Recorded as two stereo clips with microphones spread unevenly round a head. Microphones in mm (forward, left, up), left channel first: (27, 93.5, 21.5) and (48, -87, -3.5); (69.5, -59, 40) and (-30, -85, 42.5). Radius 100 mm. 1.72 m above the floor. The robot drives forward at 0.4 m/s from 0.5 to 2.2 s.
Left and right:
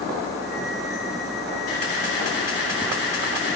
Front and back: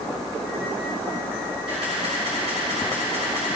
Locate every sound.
1.7 s a camera shutter: 135° left, 3.5 m; by 3.6 s 140° left, 3.5 m